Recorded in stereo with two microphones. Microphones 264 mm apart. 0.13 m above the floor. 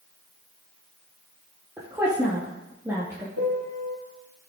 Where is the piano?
70° right (ahead or behind), 1.9 m.